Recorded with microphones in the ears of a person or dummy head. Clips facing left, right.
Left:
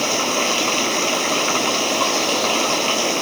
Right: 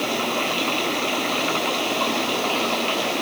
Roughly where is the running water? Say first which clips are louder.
Left 3 dB; left.